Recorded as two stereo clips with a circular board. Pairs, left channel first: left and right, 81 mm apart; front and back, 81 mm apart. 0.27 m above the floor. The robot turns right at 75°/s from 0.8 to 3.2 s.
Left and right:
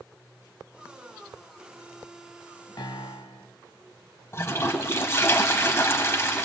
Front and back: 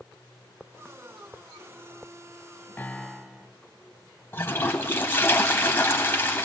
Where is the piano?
65° left, 0.6 m; by 3.5 s 95° left, 0.6 m.